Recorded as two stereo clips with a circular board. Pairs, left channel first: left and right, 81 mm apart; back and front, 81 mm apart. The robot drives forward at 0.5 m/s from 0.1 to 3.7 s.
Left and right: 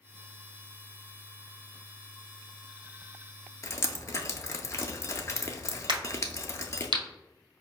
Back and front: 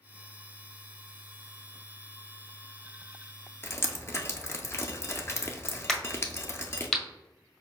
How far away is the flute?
No flute in this recording.